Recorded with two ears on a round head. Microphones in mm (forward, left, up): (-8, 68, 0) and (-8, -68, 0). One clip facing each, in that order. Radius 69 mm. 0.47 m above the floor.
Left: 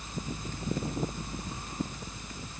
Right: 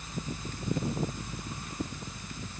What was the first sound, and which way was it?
Only background noise.